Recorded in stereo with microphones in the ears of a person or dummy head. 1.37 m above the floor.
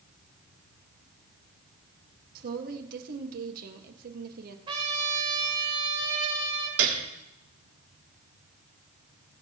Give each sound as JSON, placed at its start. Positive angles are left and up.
{"t": 2.4, "sound": "a woman speaking", "side_deg": -55, "distance_m": 1.5}
{"t": 4.7, "sound": "a trumpet", "side_deg": -30, "distance_m": 2.5}
{"t": 6.8, "sound": "a piano", "side_deg": -80, "distance_m": 2.5}